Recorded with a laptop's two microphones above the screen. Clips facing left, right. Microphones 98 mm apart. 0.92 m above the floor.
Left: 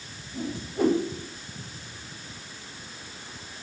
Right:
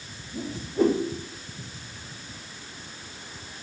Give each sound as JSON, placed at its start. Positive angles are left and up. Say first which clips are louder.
{"t": 0.3, "sound": "a whoosh", "louder": "right 4 dB", "side_deg": -20, "distance_m": 1.4}